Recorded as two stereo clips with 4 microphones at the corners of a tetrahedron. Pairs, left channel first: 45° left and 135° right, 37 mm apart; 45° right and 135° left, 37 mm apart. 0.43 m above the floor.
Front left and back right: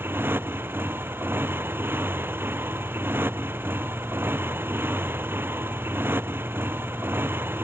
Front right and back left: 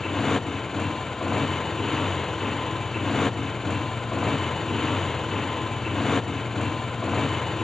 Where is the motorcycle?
125° right.